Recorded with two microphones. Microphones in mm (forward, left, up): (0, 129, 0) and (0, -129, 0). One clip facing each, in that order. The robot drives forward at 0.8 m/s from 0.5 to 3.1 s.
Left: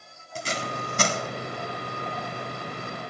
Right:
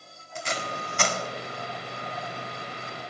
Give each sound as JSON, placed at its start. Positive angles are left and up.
{"t": 0.3, "sound": "tape being pulled", "side_deg": 35, "distance_m": 1.8}